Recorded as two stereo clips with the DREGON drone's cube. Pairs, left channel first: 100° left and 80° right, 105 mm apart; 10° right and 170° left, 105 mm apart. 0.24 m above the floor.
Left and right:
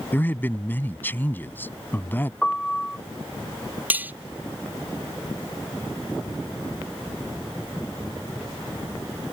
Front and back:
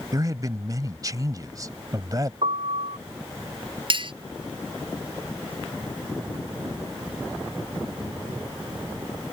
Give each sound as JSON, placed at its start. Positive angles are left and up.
{"t": 0.1, "sound": "a man speaking", "azimuth_deg": 155}
{"t": 2.4, "sound": "a piano", "azimuth_deg": -175}
{"t": 3.9, "sound": "cutlery clinking", "azimuth_deg": -155}